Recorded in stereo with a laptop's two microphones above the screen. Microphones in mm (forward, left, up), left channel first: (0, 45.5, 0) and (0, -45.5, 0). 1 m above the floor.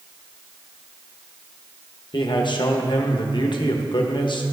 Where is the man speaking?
55° left (ahead or behind), 1.0 m.